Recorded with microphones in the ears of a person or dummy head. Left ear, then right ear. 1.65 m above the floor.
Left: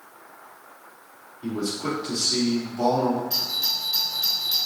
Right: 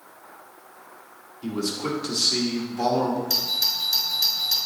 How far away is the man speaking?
About 2.5 m.